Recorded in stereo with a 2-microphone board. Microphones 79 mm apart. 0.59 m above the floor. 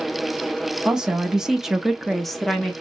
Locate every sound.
0.8 s a woman speaking: 10° right (ahead or behind), 1.0 m; by 2.7 s 5° left (ahead or behind), 1.0 m